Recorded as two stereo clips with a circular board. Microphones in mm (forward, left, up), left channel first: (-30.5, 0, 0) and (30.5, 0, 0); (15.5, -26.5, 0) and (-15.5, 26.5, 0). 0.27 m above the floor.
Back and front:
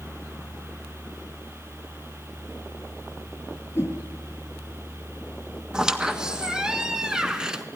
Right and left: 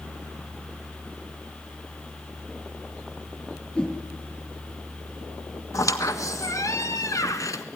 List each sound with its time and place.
3.8 s a whoosh: 130° right, 6 m
5.7 s a squeak: 80° right, 1.7 m